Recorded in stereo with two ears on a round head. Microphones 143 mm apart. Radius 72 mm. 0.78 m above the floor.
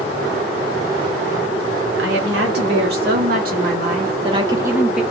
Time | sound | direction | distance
2.0 | a woman speaking | 75° right (ahead or behind) | 1.7 m